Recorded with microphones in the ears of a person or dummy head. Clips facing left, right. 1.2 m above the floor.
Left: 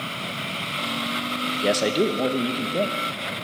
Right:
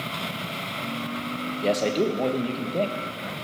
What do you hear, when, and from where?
1.6 s a man speaking: 15° left (ahead or behind), 0.7 m